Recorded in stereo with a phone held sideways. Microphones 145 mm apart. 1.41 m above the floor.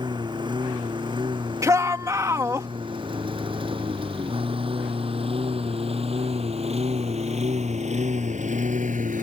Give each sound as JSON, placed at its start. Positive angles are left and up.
{"t": 0.0, "sound": "a lawn mower", "side_deg": -30}
{"t": 1.6, "sound": "a shout", "side_deg": -20}